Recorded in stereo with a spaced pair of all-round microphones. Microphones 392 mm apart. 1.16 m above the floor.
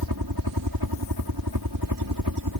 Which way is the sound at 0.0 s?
60° right (ahead or behind).